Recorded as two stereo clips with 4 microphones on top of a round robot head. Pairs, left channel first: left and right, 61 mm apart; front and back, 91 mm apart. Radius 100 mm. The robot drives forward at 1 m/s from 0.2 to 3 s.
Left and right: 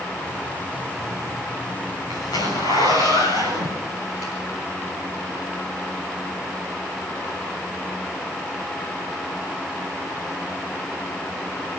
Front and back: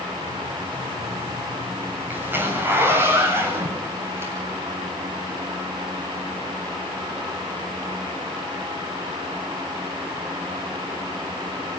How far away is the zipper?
About 8 m.